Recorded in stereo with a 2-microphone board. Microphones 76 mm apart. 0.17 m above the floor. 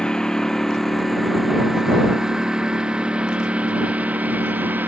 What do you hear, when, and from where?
0.0 s a lawn mower: 10° left (ahead or behind); by 4.9 s 25° right (ahead or behind)